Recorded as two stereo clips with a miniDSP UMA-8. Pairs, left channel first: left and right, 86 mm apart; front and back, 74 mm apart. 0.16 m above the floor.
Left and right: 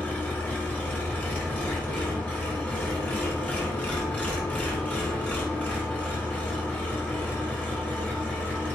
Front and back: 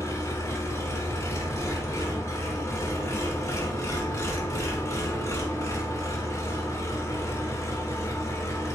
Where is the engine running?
25° left, 1.1 m.